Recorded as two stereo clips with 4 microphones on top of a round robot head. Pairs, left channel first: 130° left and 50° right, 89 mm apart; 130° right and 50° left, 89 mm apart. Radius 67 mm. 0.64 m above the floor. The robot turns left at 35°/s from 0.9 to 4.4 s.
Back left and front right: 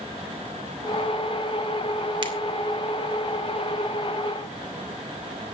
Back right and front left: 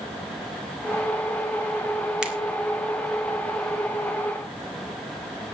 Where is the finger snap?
30° right, 2.5 m; by 2.3 s 35° right, 2.5 m.